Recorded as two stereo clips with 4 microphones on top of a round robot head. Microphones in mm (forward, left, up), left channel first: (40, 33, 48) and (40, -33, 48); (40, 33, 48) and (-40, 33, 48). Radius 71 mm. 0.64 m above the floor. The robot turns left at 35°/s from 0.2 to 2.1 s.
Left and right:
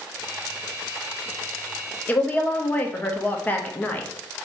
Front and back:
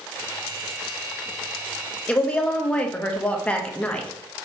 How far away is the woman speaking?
About 0.6 m.